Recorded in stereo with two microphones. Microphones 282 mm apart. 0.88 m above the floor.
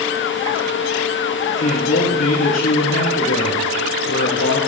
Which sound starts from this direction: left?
A man speaking, at 1.6 s.